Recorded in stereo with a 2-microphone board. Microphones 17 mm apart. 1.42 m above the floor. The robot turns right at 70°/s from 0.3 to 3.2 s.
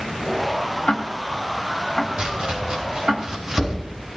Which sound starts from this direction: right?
Chopping, at 2.2 s.